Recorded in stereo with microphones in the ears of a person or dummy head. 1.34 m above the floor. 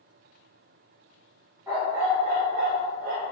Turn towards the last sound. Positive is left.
turn(degrees=-70)  # may be behind; listen again after turning